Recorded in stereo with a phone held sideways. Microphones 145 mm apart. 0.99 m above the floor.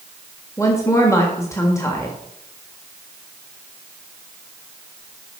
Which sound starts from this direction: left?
A woman speaking, at 0.6 s.